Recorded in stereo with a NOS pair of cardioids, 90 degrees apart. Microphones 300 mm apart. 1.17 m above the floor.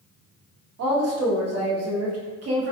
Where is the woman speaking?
50° right, 1.1 m.